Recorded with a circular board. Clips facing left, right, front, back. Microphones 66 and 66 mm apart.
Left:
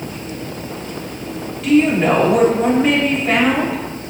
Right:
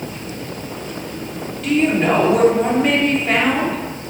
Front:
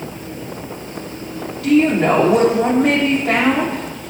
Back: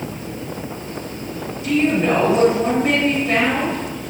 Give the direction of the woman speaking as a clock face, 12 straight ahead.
12 o'clock.